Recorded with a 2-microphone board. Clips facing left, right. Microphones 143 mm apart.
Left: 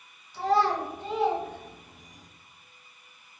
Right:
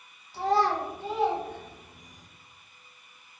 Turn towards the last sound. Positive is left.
turn(degrees=40)  # may be behind; listen again after turning